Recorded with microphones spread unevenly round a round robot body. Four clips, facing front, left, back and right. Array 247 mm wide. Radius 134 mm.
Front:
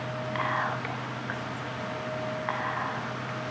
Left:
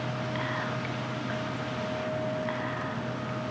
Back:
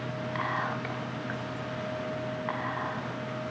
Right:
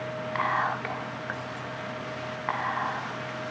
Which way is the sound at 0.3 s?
60° right.